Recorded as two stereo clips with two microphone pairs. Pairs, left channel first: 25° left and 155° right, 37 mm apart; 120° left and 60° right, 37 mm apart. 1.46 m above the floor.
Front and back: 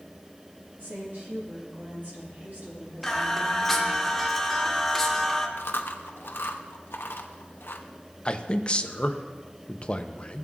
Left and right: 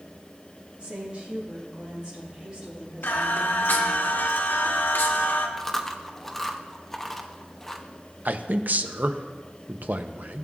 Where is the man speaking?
30° right, 0.7 m.